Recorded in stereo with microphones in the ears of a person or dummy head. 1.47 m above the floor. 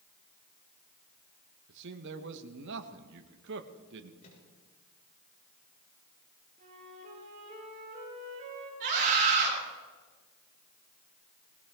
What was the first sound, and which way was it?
A man speaking, 60° right (ahead or behind).